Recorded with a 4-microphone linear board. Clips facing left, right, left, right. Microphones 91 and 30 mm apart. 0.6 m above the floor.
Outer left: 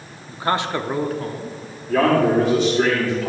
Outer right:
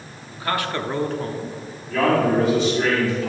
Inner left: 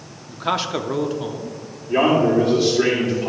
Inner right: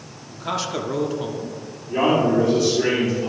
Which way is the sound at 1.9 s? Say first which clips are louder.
Outer left 2 dB, inner left 2 dB; 50° left (ahead or behind).